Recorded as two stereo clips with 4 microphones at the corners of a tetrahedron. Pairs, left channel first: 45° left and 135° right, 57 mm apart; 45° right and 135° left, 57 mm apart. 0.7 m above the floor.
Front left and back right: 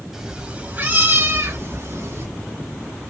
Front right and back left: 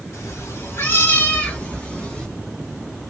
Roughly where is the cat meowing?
Ahead right.